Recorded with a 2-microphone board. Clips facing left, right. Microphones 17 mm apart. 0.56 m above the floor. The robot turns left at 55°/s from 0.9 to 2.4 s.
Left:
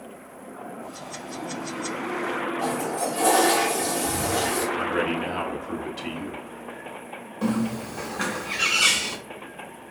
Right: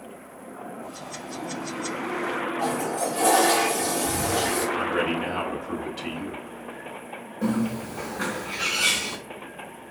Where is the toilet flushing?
Centre (ahead or behind), 2.5 m.